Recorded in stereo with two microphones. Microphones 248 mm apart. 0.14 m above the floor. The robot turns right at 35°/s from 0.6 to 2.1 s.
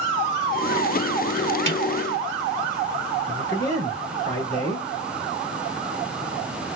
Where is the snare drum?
25° right (ahead or behind), 1.6 m.